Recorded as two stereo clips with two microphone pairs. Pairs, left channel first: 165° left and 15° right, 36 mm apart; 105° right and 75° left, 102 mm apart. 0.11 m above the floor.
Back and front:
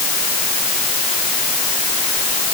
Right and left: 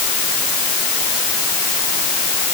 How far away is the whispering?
No whispering in this recording.